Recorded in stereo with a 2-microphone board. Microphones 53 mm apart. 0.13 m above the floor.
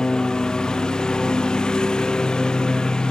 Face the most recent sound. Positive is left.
turn(degrees=15)  # may be behind; listen again after turning